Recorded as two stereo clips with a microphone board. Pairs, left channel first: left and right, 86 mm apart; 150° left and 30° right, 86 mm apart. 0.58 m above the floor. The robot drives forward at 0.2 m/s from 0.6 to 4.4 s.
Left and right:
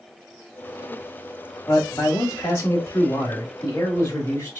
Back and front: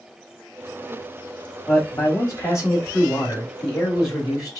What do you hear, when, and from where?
1.7 s a man speaking: 120° left, 1.3 m; by 4.6 s 145° left, 1.6 m